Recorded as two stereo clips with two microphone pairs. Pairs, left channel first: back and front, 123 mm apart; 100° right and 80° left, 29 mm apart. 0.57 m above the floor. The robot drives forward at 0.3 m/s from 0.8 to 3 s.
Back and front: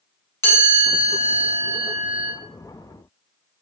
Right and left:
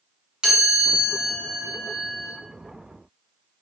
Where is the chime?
125° left, 1.2 m; by 2.3 s 145° left, 1.4 m.